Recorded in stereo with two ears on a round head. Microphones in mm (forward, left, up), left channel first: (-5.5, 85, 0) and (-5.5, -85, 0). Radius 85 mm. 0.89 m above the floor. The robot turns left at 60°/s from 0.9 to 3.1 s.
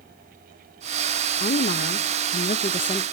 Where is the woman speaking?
125° left, 0.7 m; by 3.0 s 25° left, 0.7 m.